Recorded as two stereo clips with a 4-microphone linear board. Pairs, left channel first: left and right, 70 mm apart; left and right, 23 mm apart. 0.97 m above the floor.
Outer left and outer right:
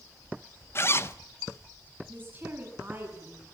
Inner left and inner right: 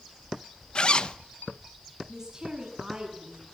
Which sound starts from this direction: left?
A zipper, at 0.8 s.